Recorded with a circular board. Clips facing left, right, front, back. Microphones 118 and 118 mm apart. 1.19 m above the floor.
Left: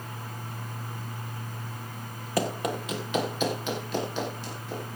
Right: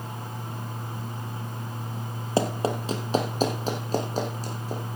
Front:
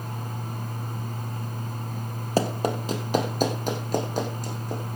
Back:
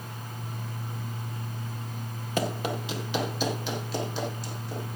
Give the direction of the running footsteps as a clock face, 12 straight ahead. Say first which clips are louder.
Right 3 dB, front 5 dB; 1 o'clock.